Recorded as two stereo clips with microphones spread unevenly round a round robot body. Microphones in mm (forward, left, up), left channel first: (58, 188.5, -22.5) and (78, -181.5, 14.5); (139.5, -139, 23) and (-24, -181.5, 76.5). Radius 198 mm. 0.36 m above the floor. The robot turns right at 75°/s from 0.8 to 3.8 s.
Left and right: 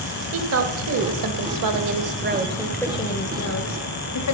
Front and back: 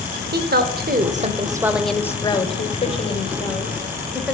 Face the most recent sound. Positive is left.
turn(degrees=85)